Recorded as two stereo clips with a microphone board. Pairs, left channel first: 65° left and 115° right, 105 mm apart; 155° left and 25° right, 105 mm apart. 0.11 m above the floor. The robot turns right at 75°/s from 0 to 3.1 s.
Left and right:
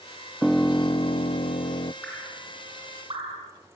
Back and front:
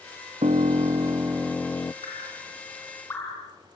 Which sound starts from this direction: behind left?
Dripping, at 2.0 s.